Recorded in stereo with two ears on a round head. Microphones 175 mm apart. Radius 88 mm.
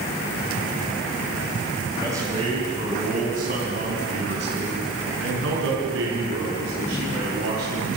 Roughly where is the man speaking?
Centre.